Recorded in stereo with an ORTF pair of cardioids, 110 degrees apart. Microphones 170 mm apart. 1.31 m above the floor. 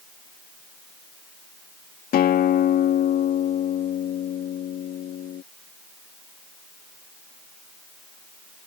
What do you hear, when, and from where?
2.1 s a guitar: 60° left